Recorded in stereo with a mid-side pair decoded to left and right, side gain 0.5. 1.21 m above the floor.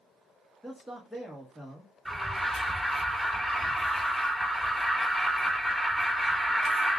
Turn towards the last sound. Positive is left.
turn(degrees=0)